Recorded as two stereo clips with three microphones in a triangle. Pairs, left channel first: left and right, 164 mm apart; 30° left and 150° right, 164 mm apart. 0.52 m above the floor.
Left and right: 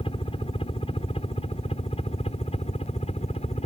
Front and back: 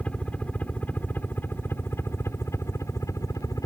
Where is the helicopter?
105° left; by 3.7 s 90° left.